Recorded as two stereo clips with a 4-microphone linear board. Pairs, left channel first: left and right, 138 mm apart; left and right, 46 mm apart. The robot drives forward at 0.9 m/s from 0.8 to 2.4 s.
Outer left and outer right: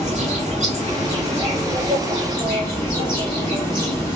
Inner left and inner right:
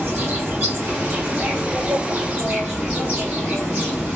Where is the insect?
55° right (ahead or behind), 1.7 m; by 4.2 s 35° right (ahead or behind), 2.5 m.